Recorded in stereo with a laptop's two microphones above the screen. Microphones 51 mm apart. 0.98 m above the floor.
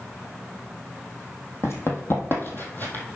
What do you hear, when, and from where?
1.6 s running footsteps: 55° left (ahead or behind), 1.7 m; by 3.0 s 35° left (ahead or behind), 1.5 m